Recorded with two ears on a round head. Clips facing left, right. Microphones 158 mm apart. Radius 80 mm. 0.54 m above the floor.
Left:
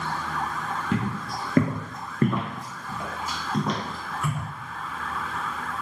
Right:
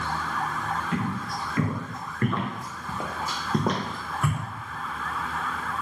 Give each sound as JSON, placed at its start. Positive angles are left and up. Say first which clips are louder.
{"t": 0.9, "sound": "footsteps", "louder": "left 1 dB", "side_deg": 60, "distance_m": 1.0}